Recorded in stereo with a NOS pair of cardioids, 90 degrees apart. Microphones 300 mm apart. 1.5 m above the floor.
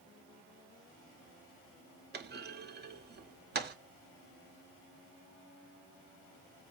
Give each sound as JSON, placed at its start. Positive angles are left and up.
{"t": 2.1, "sound": "a clunk", "azimuth_deg": -35, "distance_m": 0.8}